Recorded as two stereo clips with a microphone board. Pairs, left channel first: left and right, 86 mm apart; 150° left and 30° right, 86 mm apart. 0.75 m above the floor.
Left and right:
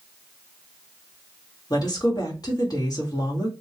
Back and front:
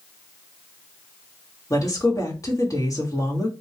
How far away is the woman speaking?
About 1.4 m.